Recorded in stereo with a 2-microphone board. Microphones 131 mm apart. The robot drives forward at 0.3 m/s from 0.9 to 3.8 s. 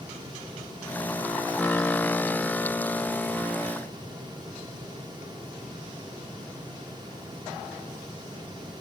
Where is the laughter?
I don't hear laughter.